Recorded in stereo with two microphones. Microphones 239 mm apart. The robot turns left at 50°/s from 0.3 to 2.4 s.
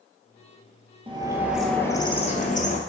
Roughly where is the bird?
Behind right.